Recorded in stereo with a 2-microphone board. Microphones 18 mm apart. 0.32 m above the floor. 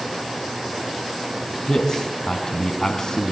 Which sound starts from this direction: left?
A man speaking, at 1.7 s.